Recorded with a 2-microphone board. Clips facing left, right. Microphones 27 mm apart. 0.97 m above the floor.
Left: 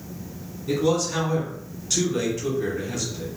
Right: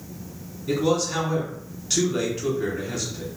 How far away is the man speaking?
About 2.5 m.